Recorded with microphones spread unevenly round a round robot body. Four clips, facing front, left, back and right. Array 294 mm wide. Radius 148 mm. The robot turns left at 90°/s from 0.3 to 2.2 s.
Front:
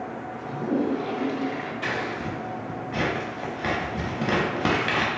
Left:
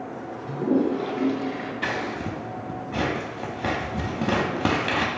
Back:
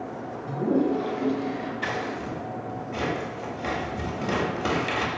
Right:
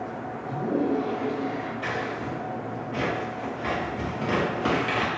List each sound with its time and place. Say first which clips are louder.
0.5 s a toilet flushing: left 3 dB, back 2 dB; 155° left, 1.4 m; by 1.7 s 40° left, 1.4 m
1.8 s scissors: left 1 dB, front 1 dB; 100° left, 0.9 m; by 5.1 s 65° left, 0.9 m